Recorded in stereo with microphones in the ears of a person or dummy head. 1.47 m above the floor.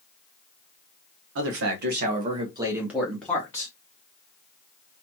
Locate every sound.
1.4 s a man speaking: 70° right (ahead or behind), 0.9 m; by 3.7 s 20° left (ahead or behind), 1.1 m